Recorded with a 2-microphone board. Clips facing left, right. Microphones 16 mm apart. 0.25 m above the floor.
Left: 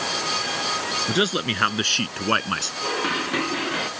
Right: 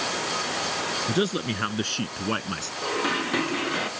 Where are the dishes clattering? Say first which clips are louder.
Right 2 dB; 5° left (ahead or behind).